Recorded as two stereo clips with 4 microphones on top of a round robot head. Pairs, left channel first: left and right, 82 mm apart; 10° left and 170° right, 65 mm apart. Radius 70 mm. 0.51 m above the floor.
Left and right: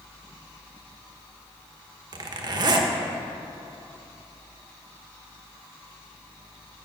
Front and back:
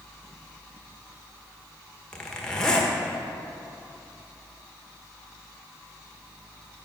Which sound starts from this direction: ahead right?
A zipper, at 2.1 s.